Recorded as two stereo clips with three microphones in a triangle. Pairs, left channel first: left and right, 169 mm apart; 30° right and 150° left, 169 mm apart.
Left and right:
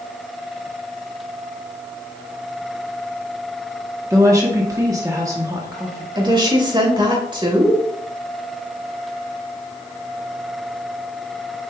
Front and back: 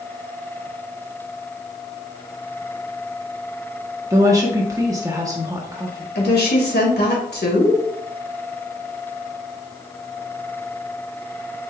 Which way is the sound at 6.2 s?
25° right.